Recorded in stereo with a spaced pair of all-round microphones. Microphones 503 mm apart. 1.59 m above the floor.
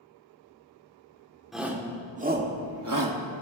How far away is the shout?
About 1.6 m.